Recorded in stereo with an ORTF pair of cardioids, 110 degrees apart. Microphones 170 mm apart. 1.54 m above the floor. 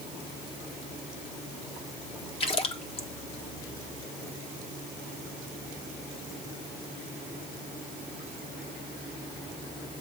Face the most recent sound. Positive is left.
turn(degrees=35)